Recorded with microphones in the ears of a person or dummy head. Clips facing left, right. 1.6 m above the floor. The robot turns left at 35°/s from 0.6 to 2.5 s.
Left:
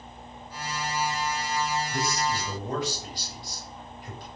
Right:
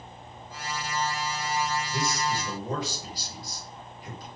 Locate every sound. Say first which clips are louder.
1.9 s a man speaking: left 1 dB; 10° right (ahead or behind), 2.5 m; by 4.3 s 30° right (ahead or behind), 2.5 m